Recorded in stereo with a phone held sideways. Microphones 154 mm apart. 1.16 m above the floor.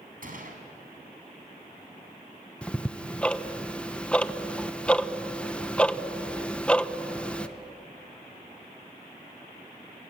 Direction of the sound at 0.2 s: 65° right (ahead or behind).